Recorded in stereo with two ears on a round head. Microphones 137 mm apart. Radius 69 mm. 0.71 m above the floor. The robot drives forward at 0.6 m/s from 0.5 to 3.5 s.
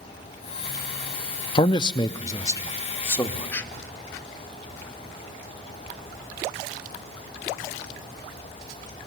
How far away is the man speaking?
About 0.6 m.